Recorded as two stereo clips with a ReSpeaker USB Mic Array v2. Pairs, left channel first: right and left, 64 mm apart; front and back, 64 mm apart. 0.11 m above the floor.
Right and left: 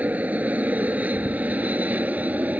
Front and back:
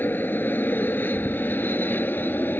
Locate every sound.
0.0 s an aircraft: 40° left